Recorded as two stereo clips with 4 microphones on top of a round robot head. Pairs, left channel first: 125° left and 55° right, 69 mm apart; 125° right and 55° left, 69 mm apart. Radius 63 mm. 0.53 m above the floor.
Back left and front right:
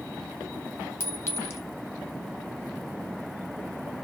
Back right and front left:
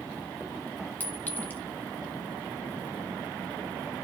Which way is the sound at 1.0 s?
175° left.